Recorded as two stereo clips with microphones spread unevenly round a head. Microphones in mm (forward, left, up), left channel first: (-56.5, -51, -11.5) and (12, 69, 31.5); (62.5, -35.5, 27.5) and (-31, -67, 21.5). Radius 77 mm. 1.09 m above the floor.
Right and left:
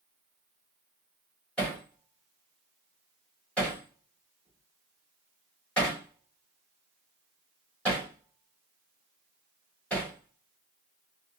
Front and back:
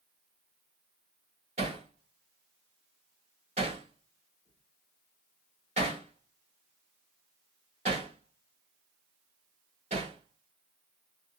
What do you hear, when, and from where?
1.6 s hammering: 155° left, 1.9 m